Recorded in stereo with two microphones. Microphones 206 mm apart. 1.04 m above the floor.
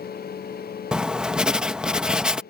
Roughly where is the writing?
Centre.